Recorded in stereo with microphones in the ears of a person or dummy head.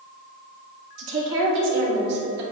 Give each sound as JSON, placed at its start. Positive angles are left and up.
{"t": 1.0, "sound": "a woman speaking", "side_deg": -75, "distance_m": 2.0}